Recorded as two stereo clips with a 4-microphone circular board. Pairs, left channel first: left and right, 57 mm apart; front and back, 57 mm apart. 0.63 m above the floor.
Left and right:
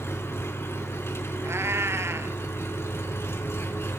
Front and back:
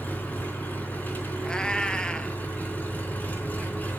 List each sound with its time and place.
0.0 s an engine running: 55° left, 3.5 m
1.4 s a cat meowing: 70° right, 1.0 m